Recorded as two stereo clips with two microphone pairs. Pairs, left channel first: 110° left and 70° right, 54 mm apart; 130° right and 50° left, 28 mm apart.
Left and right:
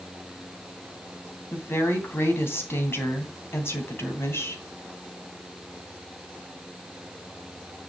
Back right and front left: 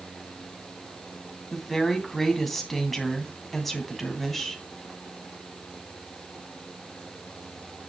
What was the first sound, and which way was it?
A woman speaking, 145° left.